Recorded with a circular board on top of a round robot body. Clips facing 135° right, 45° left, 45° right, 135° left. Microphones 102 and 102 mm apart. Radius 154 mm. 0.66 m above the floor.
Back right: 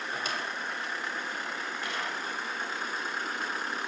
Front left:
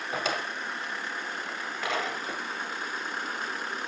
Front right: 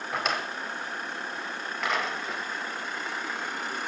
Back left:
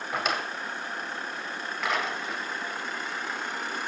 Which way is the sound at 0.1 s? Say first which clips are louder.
Front left 5 dB, even; 45° left.